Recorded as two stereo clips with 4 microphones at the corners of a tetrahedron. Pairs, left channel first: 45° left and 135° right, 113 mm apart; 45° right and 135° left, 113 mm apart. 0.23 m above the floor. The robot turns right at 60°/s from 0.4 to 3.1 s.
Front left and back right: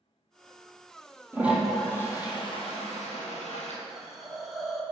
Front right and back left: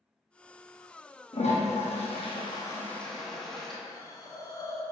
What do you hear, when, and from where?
1.3 s a toilet flushing: 65° right, 1.6 m; by 3.8 s 40° left, 1.6 m
3.9 s a hiss: 45° right, 1.0 m